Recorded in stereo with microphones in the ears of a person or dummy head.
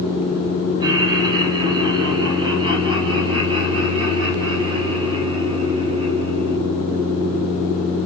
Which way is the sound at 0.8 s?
15° right (ahead or behind).